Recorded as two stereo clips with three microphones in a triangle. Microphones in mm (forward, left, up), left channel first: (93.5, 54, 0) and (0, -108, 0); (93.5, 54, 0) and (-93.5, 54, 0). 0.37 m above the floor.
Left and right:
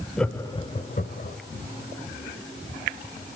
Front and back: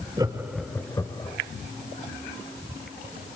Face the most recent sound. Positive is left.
turn(degrees=60)